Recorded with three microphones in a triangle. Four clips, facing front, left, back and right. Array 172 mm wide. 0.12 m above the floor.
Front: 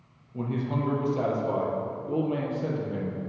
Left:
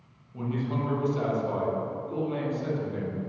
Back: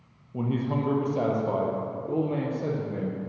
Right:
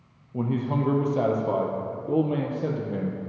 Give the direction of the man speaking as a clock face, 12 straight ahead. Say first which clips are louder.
Right 4 dB, back 2 dB; 4 o'clock.